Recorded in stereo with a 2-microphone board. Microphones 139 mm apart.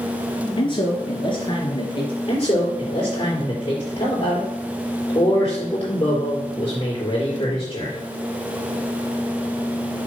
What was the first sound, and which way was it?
A man speaking, 35° left (ahead or behind).